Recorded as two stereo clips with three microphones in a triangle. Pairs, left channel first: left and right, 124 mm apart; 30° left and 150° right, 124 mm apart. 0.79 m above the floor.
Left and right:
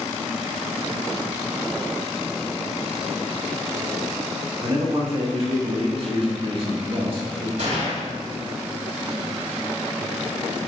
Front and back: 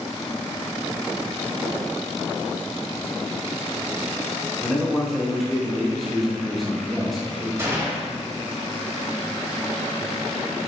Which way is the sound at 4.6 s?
60° right.